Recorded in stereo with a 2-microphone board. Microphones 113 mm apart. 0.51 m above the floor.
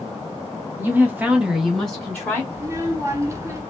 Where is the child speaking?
25° right (ahead or behind), 0.8 m.